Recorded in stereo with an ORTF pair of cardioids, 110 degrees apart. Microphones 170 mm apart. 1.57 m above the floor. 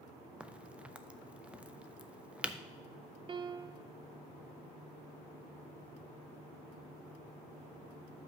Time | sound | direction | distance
0.4 | a crack | 5° right | 0.5 m
3.3 | a piano | 30° right | 0.6 m